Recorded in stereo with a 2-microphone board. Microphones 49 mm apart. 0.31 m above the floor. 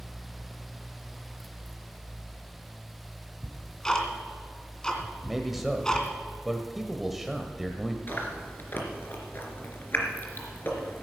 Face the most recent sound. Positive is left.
turn(degrees=45)  # may be behind; listen again after turning